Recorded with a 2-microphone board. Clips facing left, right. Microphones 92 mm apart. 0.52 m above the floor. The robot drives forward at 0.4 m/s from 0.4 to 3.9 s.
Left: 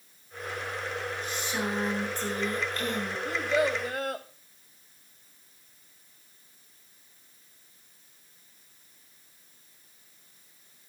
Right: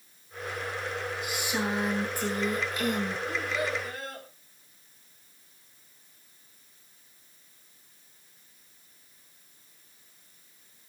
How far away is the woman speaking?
About 8 m.